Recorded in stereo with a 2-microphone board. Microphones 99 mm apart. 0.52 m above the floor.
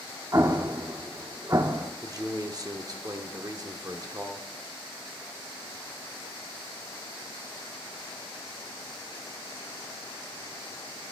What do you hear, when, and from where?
0.3 s an explosion: 35° right (ahead or behind), 0.6 m
2.0 s a man speaking: 40° right (ahead or behind), 1.0 m